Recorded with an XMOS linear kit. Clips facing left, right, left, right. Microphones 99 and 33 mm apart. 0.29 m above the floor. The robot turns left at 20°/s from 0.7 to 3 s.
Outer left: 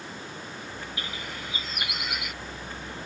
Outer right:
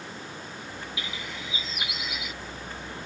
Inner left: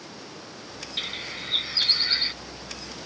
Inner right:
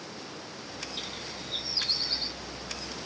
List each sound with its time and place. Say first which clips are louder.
1.0 s a bird: even, inner left 10 dB; 45° left (ahead or behind); by 2.3 s 60° left (ahead or behind)